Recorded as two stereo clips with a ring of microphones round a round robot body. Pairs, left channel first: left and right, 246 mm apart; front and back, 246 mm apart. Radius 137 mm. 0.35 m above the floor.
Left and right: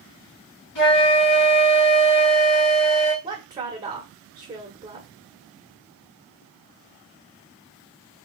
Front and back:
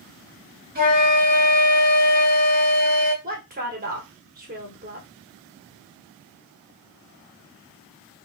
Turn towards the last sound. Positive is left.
turn(degrees=-150)